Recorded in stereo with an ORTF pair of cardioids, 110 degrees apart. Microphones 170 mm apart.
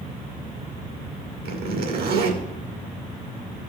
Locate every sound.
1.4 s a zipper: 65° right, 2 m